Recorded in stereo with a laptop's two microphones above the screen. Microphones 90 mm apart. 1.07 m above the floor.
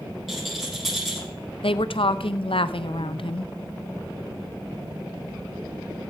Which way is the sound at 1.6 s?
75° left (ahead or behind).